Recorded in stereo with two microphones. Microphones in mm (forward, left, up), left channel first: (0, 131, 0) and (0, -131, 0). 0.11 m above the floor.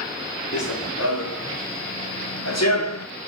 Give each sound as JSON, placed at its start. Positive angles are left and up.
{"t": 0.5, "sound": "running footsteps", "side_deg": 65, "distance_m": 3.0}